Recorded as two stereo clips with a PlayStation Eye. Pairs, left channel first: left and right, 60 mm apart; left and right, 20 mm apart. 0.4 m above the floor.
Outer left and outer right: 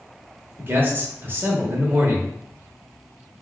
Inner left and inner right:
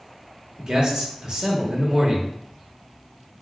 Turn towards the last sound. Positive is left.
turn(degrees=-35)  # may be behind; listen again after turning